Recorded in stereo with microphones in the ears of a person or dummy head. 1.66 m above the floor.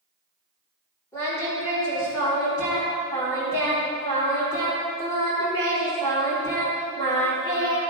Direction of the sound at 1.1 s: 15° left (ahead or behind).